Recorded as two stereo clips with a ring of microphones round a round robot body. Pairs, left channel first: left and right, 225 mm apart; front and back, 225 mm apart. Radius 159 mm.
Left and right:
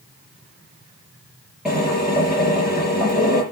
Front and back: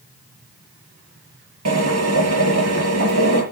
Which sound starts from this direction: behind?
A drill, at 1.6 s.